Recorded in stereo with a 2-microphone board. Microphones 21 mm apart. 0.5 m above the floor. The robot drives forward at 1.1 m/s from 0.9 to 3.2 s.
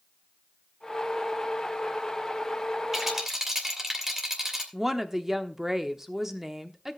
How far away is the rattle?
About 2.5 m.